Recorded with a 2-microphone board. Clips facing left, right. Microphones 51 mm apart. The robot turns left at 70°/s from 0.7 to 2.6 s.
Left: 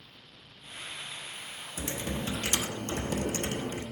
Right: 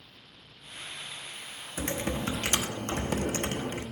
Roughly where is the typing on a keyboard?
Ahead right.